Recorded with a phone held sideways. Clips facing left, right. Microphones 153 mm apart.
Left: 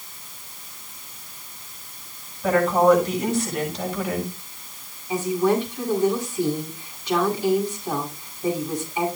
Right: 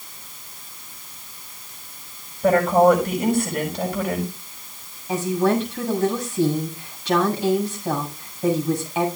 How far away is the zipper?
No zipper in this recording.